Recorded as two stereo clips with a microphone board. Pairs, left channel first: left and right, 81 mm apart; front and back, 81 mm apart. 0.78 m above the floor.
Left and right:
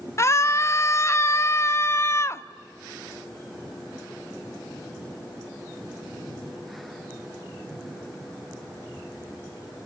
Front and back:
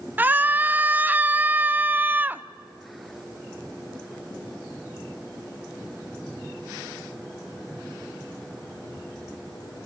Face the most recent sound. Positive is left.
turn(degrees=120)